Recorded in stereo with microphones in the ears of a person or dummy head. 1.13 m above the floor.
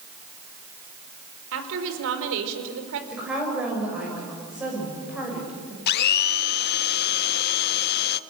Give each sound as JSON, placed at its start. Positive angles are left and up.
{"t": 1.5, "sound": "a woman speaking", "side_deg": -65, "distance_m": 4.0}
{"t": 3.1, "sound": "a woman speaking", "side_deg": -5, "distance_m": 6.5}
{"t": 5.9, "sound": "a blender", "side_deg": 55, "distance_m": 0.8}